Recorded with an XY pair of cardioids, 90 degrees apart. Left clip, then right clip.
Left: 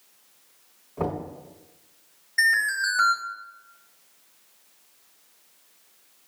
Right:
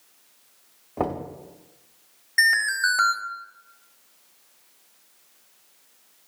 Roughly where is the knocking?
Right.